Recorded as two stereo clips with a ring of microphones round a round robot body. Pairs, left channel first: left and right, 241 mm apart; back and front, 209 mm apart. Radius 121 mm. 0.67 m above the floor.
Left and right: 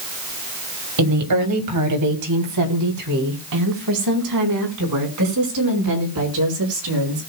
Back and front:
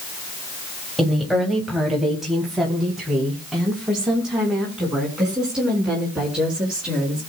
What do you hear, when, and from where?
1.0 s a woman speaking: 90° right, 3.5 m; by 7.2 s 85° right, 7.5 m